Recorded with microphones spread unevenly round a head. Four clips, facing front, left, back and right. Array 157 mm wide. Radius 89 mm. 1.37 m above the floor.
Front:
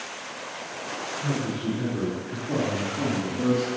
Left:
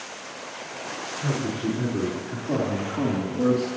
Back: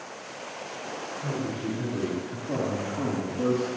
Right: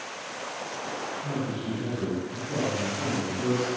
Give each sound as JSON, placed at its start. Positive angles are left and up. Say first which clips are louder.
{"t": 1.2, "sound": "a man speaking", "louder": "left 7 dB, front 3 dB", "azimuth_deg": 95, "distance_m": 5.0}